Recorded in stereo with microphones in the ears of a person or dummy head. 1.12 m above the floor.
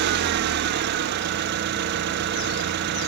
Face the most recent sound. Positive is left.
turn(degrees=-60)  # may be behind; listen again after turning